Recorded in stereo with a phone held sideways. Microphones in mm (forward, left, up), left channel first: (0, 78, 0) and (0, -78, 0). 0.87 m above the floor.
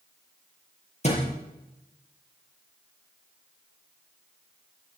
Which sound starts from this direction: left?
A thud, at 1.0 s.